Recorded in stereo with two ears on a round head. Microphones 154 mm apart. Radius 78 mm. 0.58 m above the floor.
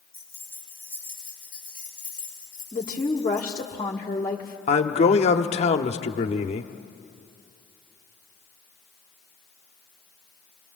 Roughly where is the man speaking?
Left.